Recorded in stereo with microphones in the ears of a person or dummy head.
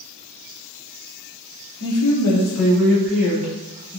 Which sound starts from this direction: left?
A woman speaking, at 1.8 s.